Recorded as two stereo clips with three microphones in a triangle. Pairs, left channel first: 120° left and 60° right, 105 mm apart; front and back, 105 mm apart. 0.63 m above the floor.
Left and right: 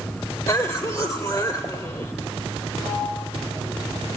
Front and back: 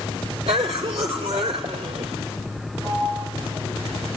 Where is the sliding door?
150° left, 6 m.